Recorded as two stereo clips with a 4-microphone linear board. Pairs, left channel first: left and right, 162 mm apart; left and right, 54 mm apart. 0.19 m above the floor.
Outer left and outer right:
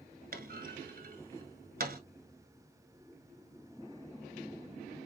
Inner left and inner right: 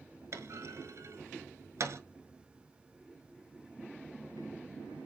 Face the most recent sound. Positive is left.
turn(degrees=-65)  # may be behind; listen again after turning